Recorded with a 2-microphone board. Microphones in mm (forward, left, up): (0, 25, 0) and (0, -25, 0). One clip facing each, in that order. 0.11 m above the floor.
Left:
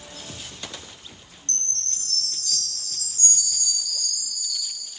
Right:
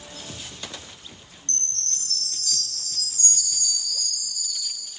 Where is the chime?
35° right (ahead or behind), 1.1 m.